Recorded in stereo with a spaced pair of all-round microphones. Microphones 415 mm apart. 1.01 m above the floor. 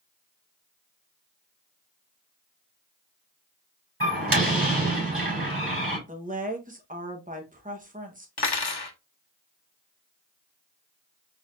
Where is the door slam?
30° right (ahead or behind), 4 m.